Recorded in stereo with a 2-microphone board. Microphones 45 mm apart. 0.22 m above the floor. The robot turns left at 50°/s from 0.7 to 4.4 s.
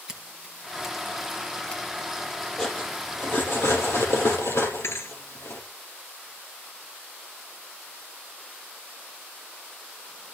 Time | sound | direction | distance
0.1 | scissors | 15° right (ahead or behind) | 2 m
2.6 | cutlery clinking | 10° left (ahead or behind) | 4 m
4.8 | a thud | 75° left (ahead or behind) | 1.5 m